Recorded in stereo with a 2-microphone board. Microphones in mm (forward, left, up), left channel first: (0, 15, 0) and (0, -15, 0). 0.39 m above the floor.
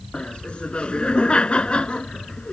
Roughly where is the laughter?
Left.